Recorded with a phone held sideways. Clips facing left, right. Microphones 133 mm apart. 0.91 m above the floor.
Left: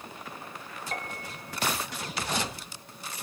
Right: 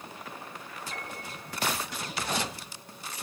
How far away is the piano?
About 3 m.